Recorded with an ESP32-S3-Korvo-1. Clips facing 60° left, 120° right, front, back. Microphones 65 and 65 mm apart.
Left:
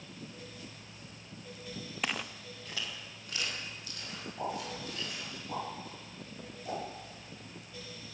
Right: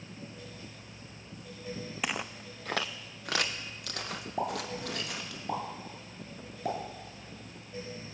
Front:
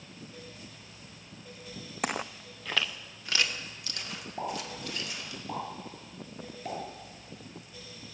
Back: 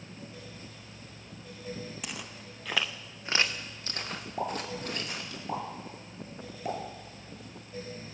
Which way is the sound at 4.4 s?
105° right.